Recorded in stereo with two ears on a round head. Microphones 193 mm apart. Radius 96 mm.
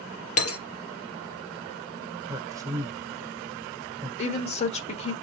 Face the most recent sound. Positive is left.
turn(degrees=30)  # may be behind; listen again after turning